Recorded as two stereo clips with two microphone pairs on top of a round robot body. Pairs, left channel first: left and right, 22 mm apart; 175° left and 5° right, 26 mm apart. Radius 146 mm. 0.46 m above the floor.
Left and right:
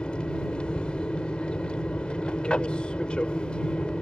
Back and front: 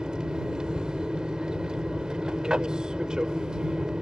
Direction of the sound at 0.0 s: 50° left.